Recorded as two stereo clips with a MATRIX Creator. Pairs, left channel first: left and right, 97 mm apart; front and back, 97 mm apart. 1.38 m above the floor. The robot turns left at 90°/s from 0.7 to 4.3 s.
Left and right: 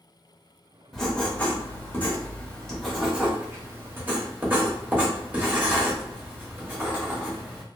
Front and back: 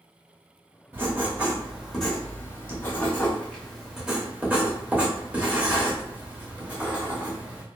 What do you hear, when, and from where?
0.9 s writing: 175° left, 0.9 m; by 7.6 s 130° right, 0.9 m